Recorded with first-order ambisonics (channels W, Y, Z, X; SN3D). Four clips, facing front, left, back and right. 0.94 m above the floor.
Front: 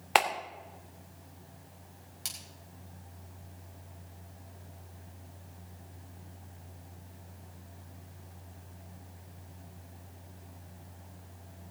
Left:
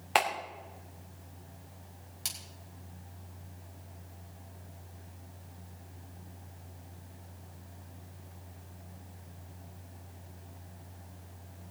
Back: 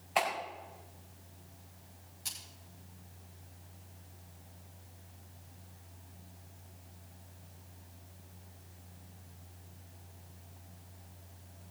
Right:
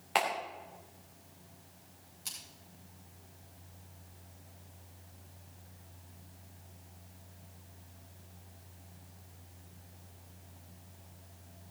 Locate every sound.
0.1 s a clap: 15° left, 3 m
2.2 s a splash: 50° left, 4.5 m